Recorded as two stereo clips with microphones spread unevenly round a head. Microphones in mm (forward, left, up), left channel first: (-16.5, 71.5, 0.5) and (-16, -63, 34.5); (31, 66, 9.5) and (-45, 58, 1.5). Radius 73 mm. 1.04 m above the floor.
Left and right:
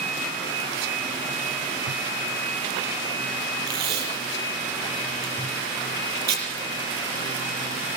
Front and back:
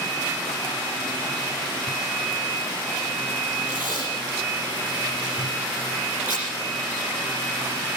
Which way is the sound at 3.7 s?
95° right.